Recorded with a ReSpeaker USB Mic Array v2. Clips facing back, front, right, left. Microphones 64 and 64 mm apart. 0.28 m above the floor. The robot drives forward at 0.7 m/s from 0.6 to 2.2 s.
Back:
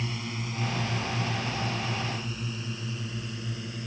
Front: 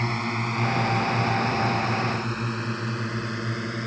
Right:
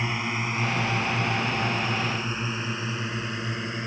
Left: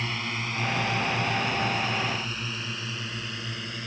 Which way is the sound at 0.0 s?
20° right.